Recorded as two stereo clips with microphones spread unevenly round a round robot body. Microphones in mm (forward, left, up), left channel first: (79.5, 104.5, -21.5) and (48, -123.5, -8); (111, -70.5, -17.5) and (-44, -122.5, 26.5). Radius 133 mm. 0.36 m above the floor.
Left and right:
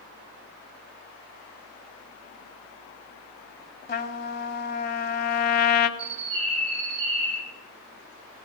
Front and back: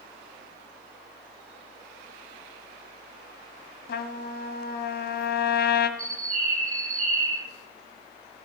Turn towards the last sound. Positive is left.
turn(degrees=-130)